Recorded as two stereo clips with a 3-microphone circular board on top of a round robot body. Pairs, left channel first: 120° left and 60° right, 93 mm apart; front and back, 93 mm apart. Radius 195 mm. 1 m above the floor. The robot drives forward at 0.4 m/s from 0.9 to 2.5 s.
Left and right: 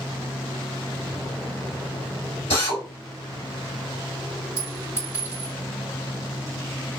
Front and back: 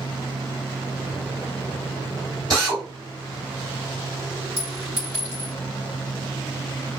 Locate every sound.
2.5 s a drill: 130° left, 1.3 m
4.6 s a clink: 175° right, 1.9 m